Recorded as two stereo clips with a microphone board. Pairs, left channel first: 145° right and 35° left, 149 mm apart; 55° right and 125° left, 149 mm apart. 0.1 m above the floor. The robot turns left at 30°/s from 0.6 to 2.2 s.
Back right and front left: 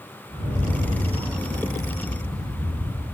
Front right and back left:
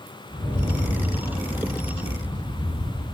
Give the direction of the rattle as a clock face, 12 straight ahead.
12 o'clock.